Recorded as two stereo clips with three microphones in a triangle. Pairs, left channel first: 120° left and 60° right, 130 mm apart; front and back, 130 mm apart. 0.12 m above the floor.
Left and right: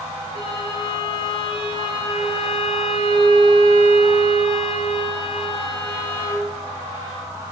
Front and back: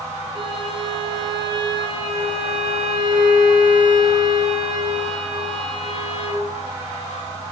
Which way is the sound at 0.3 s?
145° left.